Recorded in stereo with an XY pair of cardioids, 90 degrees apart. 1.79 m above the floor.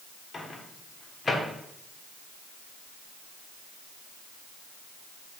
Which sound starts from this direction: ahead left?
A microwave, at 0.3 s.